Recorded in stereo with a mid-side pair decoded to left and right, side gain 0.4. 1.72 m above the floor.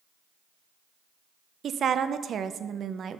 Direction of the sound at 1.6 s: 60° right.